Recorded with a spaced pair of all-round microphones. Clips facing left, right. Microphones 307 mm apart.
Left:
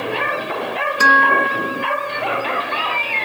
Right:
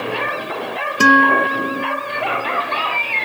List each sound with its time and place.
1.0 s a guitar: 40° right (ahead or behind)